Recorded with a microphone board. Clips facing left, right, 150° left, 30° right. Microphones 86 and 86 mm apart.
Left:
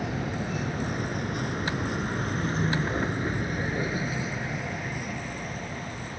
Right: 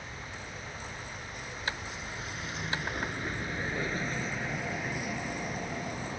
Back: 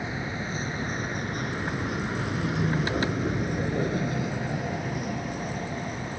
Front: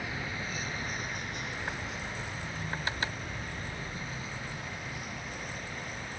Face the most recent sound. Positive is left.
turn(degrees=-165)